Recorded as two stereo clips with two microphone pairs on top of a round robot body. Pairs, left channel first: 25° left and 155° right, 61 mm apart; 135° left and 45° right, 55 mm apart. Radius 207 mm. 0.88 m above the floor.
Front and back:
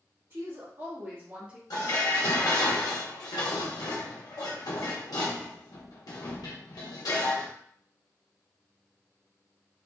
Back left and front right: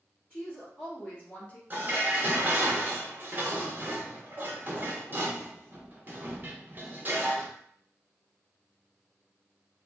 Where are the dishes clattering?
10° left, 0.7 m.